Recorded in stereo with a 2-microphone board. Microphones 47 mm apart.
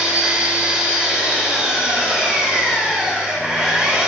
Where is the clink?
No clink in this recording.